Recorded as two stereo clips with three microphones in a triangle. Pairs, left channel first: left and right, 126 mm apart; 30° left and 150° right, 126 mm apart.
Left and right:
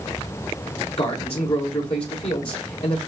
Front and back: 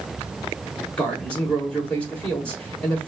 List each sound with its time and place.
1.0 s a man speaking: 105° left, 1.6 m